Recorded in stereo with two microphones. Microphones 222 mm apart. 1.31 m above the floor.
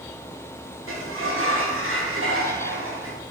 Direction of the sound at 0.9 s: 70° right (ahead or behind).